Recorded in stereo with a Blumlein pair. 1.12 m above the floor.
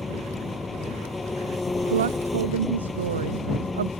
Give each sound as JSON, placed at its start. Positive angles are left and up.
{"t": 0.0, "sound": "an engine running", "azimuth_deg": 10}
{"t": 1.9, "sound": "a woman speaking", "azimuth_deg": -65}